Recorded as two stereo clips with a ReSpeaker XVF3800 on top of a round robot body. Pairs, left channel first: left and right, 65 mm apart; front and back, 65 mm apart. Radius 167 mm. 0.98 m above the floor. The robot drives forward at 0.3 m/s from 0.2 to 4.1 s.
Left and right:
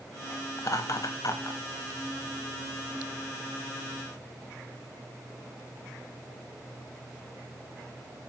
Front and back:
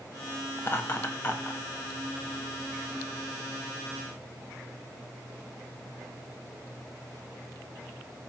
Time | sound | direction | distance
0.6 | laughter | 55° left | 2 m